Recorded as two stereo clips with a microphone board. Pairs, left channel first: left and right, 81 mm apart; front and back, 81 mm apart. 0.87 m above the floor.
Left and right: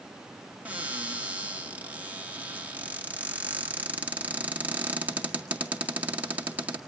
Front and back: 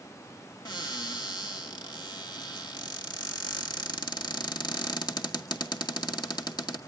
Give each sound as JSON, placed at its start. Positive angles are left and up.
{"t": 0.7, "sound": "a cupboard door", "azimuth_deg": -20, "distance_m": 1.6}